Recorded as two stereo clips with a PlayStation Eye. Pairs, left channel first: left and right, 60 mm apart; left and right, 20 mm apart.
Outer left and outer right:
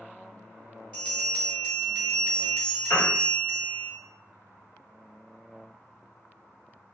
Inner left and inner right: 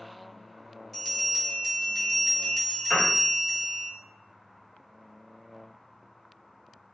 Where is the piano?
60° left (ahead or behind), 1.2 m.